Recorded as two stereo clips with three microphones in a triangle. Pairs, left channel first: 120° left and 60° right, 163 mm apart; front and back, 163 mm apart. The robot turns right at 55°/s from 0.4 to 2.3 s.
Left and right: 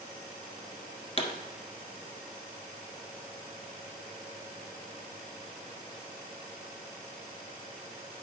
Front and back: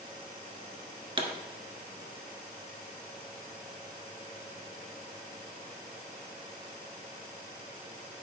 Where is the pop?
140° left, 1.3 m; by 1.3 s 150° left, 1.3 m.